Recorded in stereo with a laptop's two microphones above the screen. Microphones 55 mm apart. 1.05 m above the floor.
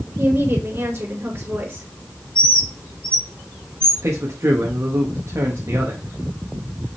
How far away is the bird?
About 2 m.